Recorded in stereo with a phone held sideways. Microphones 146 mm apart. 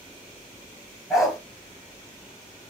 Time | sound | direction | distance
1.1 | a dog barking | 5° right (ahead or behind) | 3.5 m